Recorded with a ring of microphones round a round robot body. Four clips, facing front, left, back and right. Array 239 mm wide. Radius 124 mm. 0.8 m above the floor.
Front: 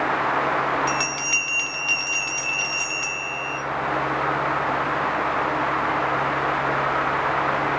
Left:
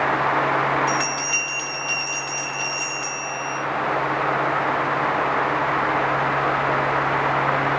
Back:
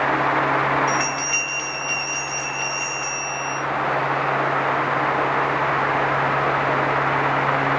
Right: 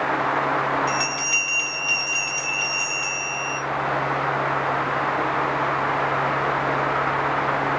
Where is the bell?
5° left, 1.8 m.